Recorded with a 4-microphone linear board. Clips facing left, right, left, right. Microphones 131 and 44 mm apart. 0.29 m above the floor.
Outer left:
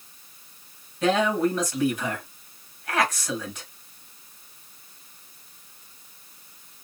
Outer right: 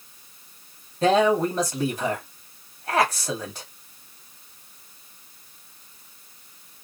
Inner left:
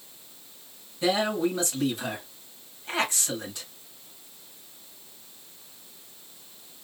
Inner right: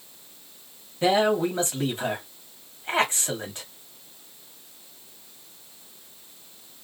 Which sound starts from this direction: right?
A man speaking, at 1.0 s.